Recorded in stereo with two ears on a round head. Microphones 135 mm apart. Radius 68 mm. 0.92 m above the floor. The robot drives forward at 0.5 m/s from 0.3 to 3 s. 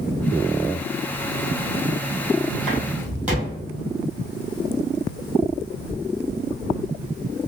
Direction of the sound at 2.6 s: Centre (ahead or behind).